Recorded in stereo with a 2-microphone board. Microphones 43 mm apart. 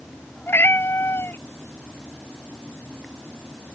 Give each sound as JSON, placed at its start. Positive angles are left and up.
{"t": 0.5, "sound": "a cat meowing", "side_deg": 65}